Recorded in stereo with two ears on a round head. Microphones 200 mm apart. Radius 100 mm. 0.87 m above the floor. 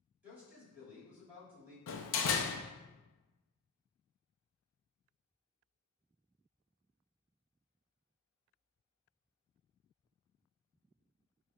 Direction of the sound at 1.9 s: 60° left (ahead or behind).